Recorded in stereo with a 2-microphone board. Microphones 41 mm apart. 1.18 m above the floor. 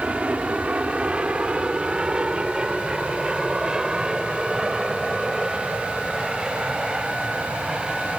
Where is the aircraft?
30° right (ahead or behind); by 8.2 s 10° right (ahead or behind).